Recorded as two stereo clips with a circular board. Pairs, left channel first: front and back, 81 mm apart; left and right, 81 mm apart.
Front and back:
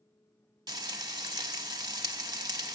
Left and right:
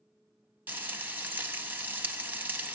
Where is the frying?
155° right, 0.6 m.